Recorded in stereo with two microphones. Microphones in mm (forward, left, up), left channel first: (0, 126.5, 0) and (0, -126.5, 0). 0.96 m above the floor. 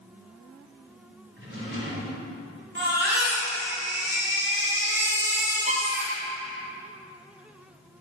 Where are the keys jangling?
No keys jangling in this recording.